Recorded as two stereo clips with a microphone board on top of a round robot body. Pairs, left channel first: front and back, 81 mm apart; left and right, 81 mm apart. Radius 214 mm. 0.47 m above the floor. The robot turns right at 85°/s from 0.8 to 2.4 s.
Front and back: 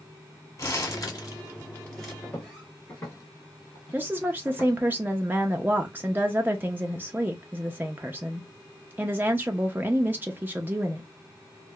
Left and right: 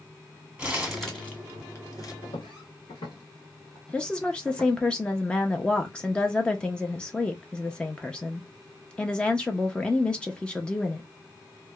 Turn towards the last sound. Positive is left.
turn(degrees=150)